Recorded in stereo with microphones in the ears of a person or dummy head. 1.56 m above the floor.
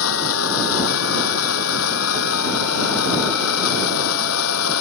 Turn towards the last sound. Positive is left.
turn(degrees=80)